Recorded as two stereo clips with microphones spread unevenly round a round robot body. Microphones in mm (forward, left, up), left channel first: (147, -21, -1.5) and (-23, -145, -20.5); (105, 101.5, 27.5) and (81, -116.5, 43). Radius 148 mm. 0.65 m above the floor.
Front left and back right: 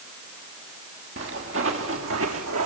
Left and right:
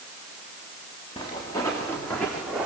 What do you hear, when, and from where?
1.2 s footsteps: 160° left, 4 m; by 2.6 s straight behind, 2.5 m